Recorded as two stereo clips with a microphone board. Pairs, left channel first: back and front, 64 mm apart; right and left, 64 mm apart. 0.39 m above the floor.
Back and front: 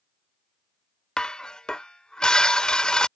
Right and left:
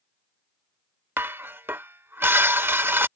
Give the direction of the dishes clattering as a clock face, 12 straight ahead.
8 o'clock.